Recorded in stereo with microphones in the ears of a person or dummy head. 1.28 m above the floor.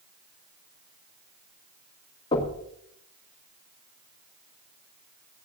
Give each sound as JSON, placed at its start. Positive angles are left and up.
{"t": 2.3, "sound": "knocking", "side_deg": 30, "distance_m": 1.9}